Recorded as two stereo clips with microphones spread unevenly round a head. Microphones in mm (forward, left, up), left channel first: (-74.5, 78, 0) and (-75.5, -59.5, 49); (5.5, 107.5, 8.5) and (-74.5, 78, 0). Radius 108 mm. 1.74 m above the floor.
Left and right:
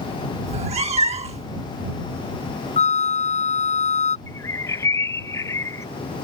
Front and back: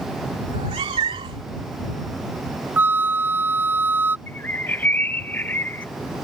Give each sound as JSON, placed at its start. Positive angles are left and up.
{"t": 0.5, "sound": "a cat meowing", "azimuth_deg": -115}
{"t": 2.8, "sound": "a flute", "azimuth_deg": 135}
{"t": 4.3, "sound": "a bird", "azimuth_deg": -10}